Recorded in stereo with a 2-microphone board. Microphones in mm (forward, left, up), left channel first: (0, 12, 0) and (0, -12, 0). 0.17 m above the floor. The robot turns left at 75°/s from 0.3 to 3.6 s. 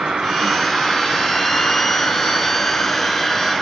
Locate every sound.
0.0 s an insect: 135° right, 1.4 m; by 3.6 s 20° right, 1.4 m